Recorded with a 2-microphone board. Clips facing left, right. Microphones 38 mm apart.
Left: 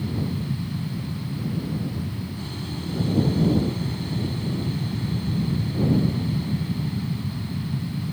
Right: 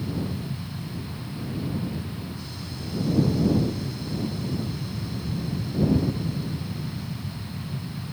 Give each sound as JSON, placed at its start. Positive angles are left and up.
{"t": 0.0, "sound": "an aircraft", "side_deg": 40}